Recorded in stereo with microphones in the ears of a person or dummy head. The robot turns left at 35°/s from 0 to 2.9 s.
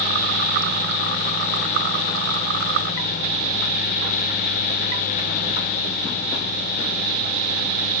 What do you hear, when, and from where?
Only background noise.